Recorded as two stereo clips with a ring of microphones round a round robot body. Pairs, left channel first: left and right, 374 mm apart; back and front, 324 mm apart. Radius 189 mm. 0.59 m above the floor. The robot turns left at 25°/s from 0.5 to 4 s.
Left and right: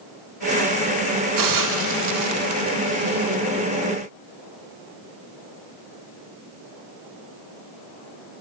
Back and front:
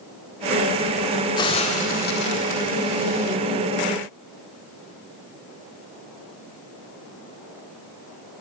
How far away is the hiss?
About 1.8 m.